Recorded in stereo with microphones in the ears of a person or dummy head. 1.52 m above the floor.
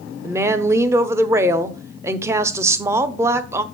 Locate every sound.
0.2 s a woman speaking: 15° right (ahead or behind), 0.6 m